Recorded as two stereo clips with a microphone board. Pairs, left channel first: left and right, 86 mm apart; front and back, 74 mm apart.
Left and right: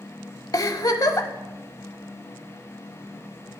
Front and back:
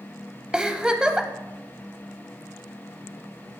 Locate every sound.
0.5 s a giggle: 105° left, 0.9 m